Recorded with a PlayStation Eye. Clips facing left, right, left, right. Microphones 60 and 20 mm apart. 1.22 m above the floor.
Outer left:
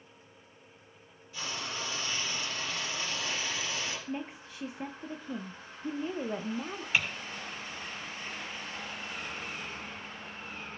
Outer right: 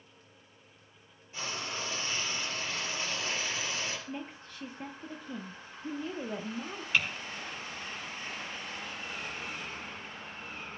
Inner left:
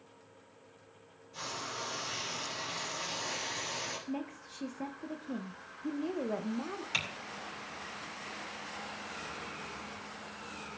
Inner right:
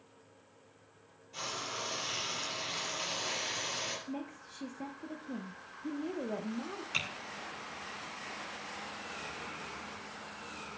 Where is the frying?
30° right (ahead or behind), 4.5 m.